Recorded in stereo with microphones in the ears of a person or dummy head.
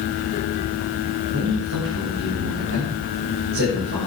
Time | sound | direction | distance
1.3 | a man speaking | 70° right (ahead or behind) | 7 m